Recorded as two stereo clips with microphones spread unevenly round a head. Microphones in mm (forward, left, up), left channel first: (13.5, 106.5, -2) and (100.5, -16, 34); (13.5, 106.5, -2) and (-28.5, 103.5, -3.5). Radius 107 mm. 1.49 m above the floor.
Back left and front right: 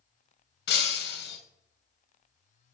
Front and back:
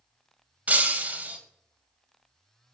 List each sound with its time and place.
0.7 s breaking glass: 135° left, 2 m